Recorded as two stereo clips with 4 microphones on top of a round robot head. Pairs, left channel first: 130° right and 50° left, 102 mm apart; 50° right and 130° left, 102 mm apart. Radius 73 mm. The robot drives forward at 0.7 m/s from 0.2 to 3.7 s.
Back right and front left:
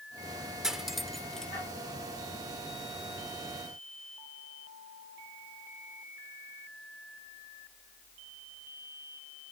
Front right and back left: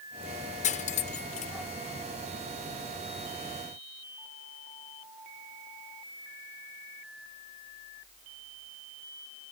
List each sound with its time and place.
0.6 s cutlery clinking: 35° right; by 1.5 s 50° right